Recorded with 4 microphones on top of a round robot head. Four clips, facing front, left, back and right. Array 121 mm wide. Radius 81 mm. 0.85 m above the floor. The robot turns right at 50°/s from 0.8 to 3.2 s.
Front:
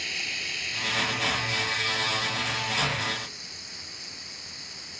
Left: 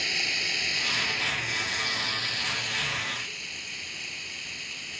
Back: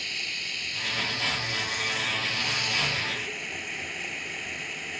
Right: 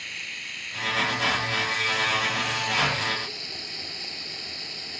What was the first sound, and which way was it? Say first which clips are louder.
Running water: left 7 dB, front 2 dB; 85° left.